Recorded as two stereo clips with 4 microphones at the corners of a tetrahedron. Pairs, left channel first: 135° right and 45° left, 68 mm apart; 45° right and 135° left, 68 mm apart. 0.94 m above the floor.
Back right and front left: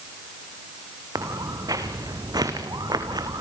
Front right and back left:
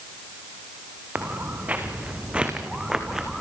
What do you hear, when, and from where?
1.1 s footsteps: 70° left, 4 m; by 3.4 s 45° left, 3.5 m